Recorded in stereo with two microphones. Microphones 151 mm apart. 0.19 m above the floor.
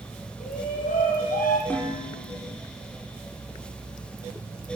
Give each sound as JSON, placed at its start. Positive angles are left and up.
{"t": 0.4, "sound": "a shout", "side_deg": 70, "distance_m": 5.0}
{"t": 1.7, "sound": "dishes clattering", "side_deg": 10, "distance_m": 3.5}